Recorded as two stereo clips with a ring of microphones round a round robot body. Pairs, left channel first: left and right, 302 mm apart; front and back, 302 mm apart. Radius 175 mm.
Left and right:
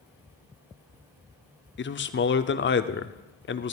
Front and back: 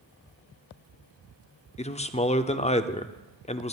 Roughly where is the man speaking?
Ahead left.